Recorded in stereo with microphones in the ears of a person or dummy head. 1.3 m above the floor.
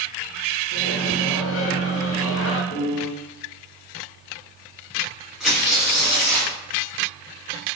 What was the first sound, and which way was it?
A microwave, 60° left (ahead or behind).